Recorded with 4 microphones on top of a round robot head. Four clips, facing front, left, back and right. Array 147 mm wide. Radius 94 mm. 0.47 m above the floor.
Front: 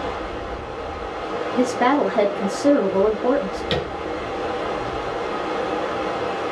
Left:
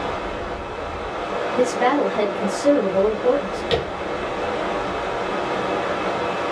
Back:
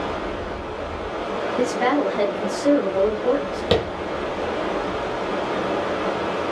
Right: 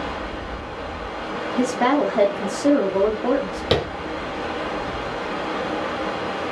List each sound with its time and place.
0.0 s running water: 120° left, 1.4 m
1.6 s a woman speaking: 15° right, 0.8 m
3.7 s tapping: 140° right, 0.6 m